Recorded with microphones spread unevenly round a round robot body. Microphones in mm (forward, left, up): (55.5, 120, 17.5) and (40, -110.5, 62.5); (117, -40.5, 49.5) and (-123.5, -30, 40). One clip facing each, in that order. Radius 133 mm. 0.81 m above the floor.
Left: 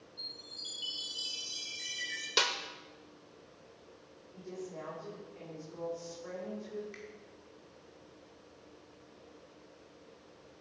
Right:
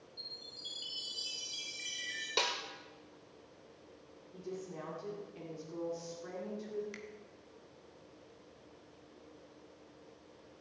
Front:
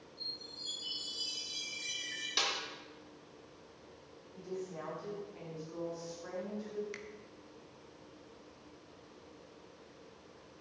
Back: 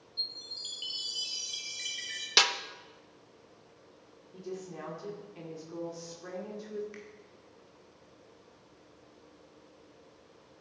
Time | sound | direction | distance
0.2 | a chime | 175° left | 4.5 m
2.4 | a snare drum | 165° left | 0.8 m
4.3 | a woman speaking | 145° right | 3 m
6.9 | a finger snap | 45° right | 1.7 m